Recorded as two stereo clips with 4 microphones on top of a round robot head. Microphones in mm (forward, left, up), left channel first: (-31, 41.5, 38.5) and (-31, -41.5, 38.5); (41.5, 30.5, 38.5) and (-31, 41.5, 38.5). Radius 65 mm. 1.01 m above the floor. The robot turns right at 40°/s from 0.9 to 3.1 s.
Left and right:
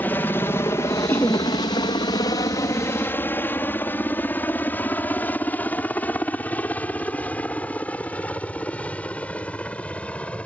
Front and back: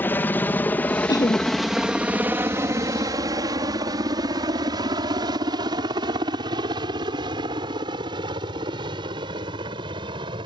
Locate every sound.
0.0 s a helicopter: 35° left; by 10.5 s 165° left
1.1 s laughter: 20° left; by 1.5 s 35° left